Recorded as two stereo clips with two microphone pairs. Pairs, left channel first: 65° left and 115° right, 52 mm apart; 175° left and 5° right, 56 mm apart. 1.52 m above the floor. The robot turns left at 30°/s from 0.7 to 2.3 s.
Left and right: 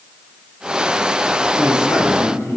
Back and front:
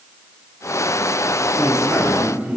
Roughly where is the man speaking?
Left.